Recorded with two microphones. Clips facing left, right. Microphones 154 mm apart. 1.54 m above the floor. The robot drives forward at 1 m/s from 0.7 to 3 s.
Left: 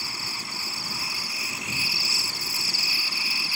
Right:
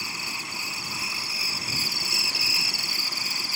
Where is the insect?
20° right (ahead or behind); by 3.6 s 45° right (ahead or behind).